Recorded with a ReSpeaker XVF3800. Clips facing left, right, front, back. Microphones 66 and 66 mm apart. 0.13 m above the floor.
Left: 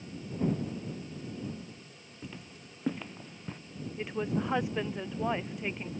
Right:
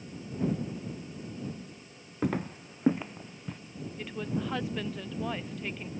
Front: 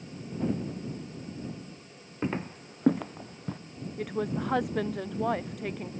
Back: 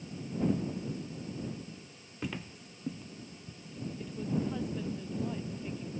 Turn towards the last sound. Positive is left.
turn(degrees=20)